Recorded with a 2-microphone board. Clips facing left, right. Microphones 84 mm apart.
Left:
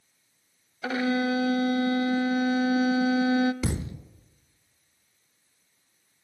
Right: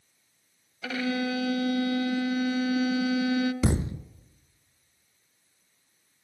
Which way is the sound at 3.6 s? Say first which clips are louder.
Right 4 dB; 30° right (ahead or behind).